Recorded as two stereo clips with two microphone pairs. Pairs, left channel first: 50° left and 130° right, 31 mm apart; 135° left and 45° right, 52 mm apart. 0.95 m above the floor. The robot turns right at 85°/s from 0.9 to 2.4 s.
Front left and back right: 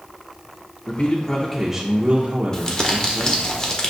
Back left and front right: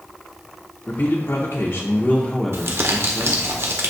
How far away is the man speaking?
About 0.8 m.